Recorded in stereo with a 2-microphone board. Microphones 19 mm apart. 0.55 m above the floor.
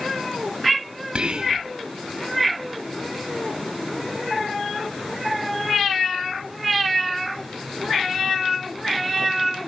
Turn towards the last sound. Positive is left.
turn(degrees=-55)  # may be behind; listen again after turning